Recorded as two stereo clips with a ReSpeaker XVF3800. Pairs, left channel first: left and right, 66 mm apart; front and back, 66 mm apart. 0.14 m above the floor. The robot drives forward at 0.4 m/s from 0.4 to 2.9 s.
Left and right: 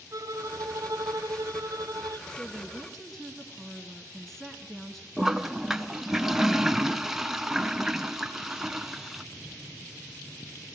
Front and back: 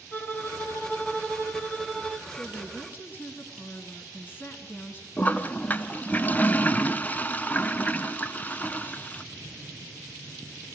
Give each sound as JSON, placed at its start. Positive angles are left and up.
{"t": 0.1, "sound": "a violin", "azimuth_deg": -55, "distance_m": 1.7}
{"t": 2.3, "sound": "a woman speaking", "azimuth_deg": 5, "distance_m": 1.9}
{"t": 5.2, "sound": "a toilet flushing", "azimuth_deg": -15, "distance_m": 0.6}